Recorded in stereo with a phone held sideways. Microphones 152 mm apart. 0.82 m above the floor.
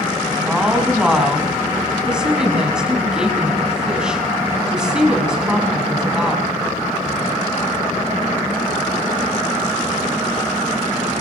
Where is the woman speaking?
5° right (ahead or behind), 7.5 m.